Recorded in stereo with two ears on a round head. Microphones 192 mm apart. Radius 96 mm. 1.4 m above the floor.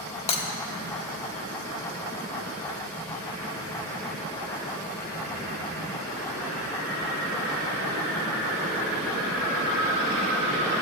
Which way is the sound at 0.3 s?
30° left (ahead or behind).